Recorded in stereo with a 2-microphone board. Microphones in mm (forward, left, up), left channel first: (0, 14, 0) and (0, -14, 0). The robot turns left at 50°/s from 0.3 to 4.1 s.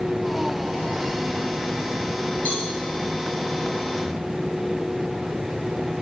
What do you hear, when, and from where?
2.5 s a cowbell: 50° left (ahead or behind), 1.6 m; by 2.7 s 45° left (ahead or behind), 1.6 m